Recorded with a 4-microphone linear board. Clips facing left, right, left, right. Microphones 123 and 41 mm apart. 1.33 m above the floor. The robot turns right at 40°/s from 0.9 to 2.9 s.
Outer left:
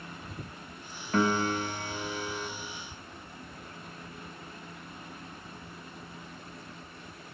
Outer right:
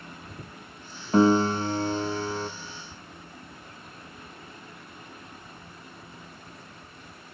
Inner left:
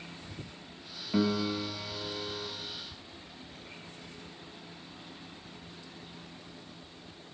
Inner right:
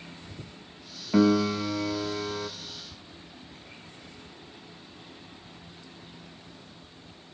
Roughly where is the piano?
Behind right.